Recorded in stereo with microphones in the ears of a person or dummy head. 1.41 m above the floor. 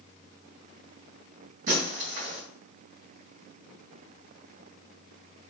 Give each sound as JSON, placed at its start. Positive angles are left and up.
{"t": 1.7, "sound": "breaking glass", "side_deg": -45, "distance_m": 2.0}